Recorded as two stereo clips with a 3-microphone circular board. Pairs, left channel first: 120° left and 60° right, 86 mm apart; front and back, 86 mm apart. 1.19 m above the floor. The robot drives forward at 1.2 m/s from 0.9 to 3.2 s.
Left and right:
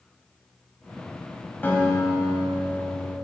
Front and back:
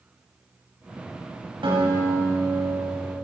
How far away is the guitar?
About 5.5 m.